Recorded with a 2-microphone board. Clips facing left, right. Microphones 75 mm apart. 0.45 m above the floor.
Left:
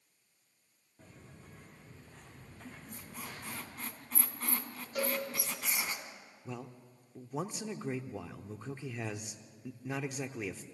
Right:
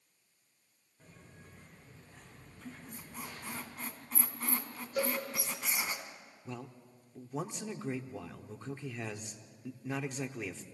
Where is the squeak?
5° right (ahead or behind), 2.5 m.